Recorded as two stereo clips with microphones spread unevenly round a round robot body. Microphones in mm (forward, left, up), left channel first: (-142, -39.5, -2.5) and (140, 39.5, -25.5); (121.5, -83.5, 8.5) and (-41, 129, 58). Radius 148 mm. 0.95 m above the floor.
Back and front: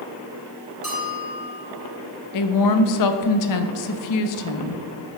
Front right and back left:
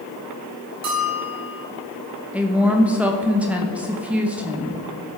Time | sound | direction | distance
0.8 | a bell | 105° left | 3.5 m
2.3 | a woman speaking | 140° right | 0.8 m